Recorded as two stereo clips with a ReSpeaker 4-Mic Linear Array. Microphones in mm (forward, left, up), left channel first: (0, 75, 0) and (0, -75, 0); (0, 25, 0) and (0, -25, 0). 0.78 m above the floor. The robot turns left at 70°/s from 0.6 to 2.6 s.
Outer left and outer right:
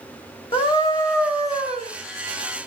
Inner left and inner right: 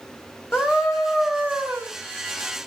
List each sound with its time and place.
0.5 s a scream: 35° left, 3.5 m; by 1.9 s 55° right, 3.5 m